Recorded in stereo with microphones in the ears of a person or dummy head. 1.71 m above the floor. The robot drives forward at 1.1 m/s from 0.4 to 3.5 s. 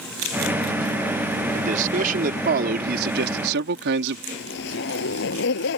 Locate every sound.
1.5 s a man speaking: 40° right (ahead or behind); by 4.2 s 60° right (ahead or behind)
4.3 s a zipper: 65° left (ahead or behind)